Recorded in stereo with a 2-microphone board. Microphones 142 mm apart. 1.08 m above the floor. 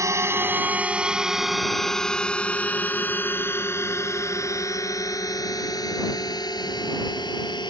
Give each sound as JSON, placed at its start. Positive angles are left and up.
{"t": 0.0, "sound": "a drone", "side_deg": -20}